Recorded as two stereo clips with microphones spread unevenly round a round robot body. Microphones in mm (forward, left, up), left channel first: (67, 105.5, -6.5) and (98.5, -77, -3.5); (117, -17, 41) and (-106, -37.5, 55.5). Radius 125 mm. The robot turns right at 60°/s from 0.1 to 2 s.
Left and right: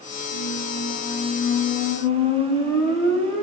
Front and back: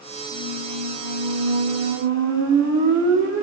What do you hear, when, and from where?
0.3 s a squeak: 95° left, 0.7 m; by 3.4 s 160° right, 0.7 m